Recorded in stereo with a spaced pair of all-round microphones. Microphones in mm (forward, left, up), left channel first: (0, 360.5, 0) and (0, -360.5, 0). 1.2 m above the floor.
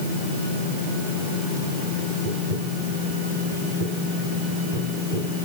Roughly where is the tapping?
Right.